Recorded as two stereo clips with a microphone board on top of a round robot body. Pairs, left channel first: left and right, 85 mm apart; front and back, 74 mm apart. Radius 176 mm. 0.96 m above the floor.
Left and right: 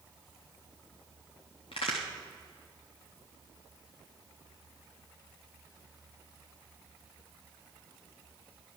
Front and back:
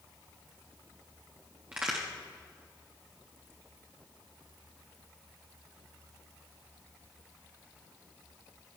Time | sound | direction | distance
1.7 | a crack | 105° left | 0.5 m